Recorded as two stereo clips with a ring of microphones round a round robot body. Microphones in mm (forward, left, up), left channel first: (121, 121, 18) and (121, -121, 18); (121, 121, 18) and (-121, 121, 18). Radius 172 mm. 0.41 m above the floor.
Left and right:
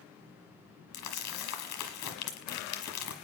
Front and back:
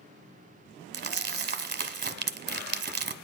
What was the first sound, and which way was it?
Crumpling, 130° left.